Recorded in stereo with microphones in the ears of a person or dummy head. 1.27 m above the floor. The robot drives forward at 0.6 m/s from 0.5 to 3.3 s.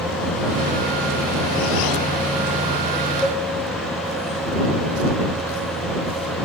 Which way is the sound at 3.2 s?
Centre (ahead or behind).